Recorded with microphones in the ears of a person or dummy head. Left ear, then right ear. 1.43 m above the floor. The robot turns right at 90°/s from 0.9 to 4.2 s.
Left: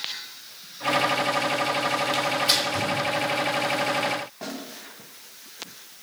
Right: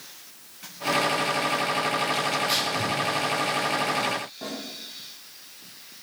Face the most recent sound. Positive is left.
turn(degrees=40)  # may be behind; listen again after turning